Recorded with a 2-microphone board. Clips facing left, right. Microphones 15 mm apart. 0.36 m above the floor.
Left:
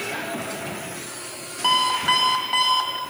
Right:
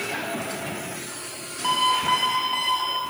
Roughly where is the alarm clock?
Left.